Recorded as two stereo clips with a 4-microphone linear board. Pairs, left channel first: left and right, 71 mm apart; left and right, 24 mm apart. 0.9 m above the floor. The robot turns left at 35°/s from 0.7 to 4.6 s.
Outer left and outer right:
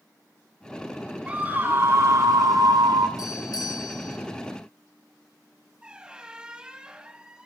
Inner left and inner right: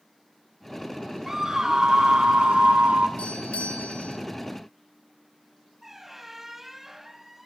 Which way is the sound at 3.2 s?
115° left.